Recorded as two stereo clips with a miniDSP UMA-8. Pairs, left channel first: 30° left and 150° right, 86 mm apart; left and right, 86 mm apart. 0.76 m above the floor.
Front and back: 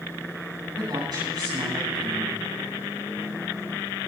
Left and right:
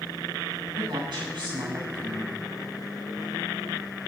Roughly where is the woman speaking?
Behind right.